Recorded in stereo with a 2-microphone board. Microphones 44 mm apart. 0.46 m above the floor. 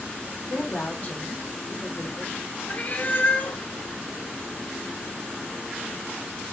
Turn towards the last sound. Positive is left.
turn(degrees=40)  # may be behind; listen again after turning